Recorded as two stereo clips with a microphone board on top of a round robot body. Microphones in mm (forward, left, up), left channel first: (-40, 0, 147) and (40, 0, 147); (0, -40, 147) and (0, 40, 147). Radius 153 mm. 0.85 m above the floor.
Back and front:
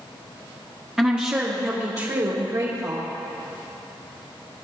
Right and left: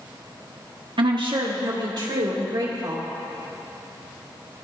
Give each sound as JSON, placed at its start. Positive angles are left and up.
{"t": 1.0, "sound": "a woman speaking", "azimuth_deg": 85, "distance_m": 1.2}